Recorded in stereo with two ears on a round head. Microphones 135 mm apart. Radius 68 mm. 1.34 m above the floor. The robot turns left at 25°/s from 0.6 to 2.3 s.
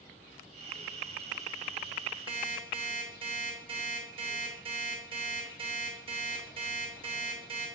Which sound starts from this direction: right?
An alarm clock, at 2.3 s.